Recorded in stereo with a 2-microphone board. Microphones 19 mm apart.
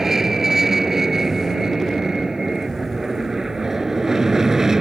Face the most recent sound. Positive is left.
turn(degrees=-35)  # may be behind; listen again after turning